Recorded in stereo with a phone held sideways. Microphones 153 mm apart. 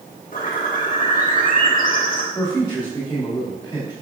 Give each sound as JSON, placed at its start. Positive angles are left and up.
{"t": 0.3, "sound": "a bird", "side_deg": 60, "distance_m": 1.1}
{"t": 2.4, "sound": "a man speaking", "side_deg": 20, "distance_m": 1.9}